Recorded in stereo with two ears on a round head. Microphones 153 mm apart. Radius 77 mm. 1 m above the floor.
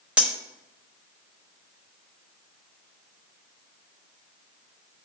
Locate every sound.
0.2 s cutlery clinking: 5° right (ahead or behind), 0.8 m